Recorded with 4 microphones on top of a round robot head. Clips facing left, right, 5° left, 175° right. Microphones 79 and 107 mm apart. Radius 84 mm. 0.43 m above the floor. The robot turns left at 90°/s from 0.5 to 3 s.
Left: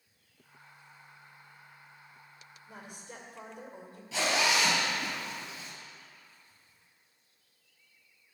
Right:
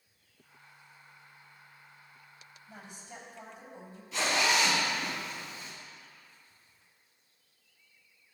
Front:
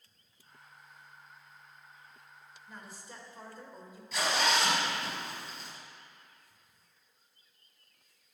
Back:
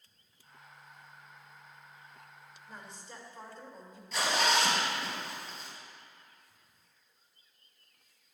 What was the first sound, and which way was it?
A woman speaking, 110° left.